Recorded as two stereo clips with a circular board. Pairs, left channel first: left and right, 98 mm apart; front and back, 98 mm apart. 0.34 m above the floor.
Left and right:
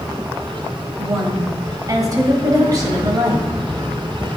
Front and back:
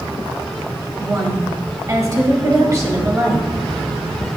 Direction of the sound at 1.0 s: 130° right.